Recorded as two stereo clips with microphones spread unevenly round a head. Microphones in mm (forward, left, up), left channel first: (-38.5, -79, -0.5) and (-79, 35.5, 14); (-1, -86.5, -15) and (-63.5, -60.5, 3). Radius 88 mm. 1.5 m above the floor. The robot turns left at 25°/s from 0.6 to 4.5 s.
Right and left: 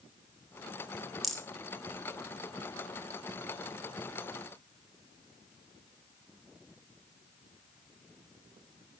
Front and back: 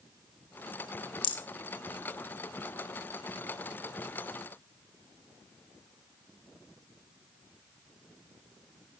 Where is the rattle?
20° left, 1.0 m; by 1.4 s 15° left, 1.0 m.